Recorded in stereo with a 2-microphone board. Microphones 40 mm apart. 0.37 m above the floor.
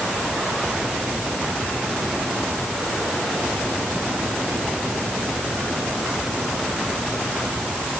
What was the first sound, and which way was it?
Only background noise.